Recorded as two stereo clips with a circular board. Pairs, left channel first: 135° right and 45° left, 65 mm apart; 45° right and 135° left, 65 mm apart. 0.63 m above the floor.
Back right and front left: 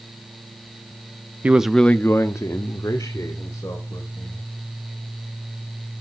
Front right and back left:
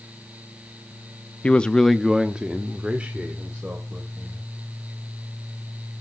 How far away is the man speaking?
About 0.6 m.